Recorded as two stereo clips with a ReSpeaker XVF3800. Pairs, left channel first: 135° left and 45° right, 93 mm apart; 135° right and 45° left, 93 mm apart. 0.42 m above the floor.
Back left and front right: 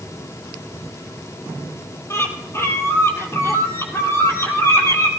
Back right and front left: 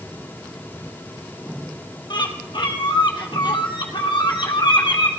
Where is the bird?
165° right, 2.5 m.